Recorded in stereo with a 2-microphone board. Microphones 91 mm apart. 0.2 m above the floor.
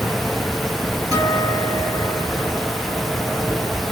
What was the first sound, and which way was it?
A guitar, 40° right (ahead or behind).